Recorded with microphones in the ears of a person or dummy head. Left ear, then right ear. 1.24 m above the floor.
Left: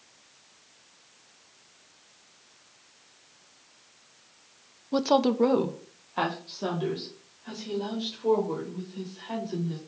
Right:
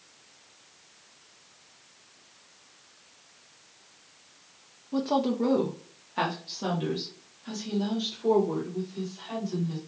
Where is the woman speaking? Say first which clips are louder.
Left 4 dB; 70° left (ahead or behind), 0.5 m; by 9.8 s 15° right (ahead or behind), 3 m.